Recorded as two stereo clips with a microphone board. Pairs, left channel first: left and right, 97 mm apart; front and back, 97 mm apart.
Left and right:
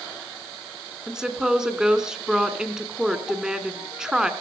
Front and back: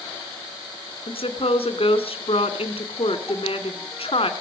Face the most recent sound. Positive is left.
turn(degrees=-5)